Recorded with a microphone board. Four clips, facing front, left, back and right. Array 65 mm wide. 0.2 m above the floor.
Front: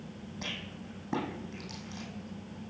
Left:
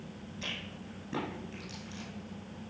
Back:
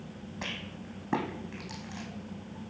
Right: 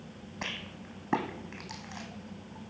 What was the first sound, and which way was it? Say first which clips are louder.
A rattle: right 3 dB, back 2 dB; 115° right.